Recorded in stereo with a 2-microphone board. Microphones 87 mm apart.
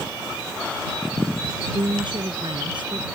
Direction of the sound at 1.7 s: 65° right (ahead or behind).